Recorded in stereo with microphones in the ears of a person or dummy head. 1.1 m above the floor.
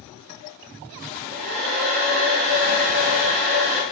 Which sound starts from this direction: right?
A hair dryer, at 1.0 s.